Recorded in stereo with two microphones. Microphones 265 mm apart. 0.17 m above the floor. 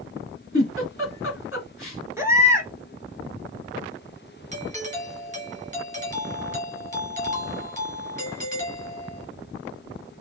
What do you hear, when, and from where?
0.5 s a giggle: 55° left (ahead or behind), 2.5 m
2.2 s a baby crying: 10° right (ahead or behind), 1.1 m
4.5 s a doorbell: 30° right (ahead or behind), 1.6 m